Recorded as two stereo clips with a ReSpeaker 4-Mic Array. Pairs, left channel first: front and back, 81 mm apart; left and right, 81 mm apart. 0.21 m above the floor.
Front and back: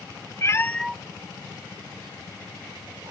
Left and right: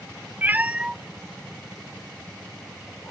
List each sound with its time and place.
0.4 s a cat meowing: 30° right, 0.6 m; by 3.1 s 160° left, 2 m